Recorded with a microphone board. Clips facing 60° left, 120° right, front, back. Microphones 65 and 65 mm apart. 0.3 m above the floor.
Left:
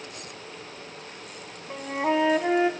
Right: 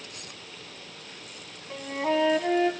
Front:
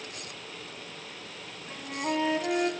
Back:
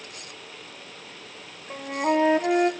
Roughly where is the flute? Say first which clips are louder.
Left 2 dB, back 7 dB; behind left.